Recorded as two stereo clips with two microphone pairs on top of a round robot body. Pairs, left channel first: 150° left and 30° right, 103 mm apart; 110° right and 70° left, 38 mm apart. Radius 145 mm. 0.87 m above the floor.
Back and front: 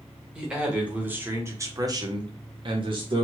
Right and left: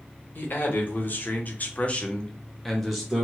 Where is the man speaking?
115° right, 1.5 m; by 3.2 s 5° right, 1.0 m.